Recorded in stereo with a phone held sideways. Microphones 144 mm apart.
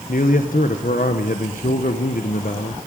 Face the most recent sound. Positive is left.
turn(degrees=70)  # may be behind; listen again after turning